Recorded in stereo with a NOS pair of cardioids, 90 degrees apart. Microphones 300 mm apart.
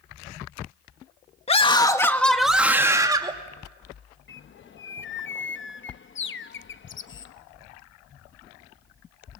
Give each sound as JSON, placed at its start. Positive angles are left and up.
{"t": 1.5, "sound": "a scream", "azimuth_deg": 20, "distance_m": 2.0}
{"t": 4.3, "sound": "a bird", "azimuth_deg": 40, "distance_m": 0.9}